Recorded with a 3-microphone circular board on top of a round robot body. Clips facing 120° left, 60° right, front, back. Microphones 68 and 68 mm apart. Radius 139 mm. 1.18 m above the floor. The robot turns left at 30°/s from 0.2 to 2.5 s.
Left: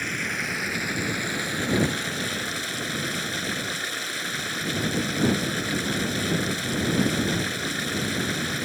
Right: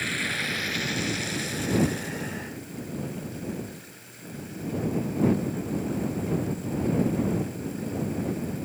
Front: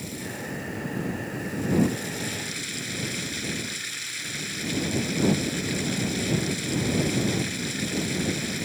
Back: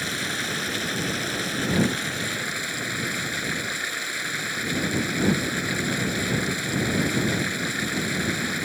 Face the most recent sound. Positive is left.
turn(degrees=130)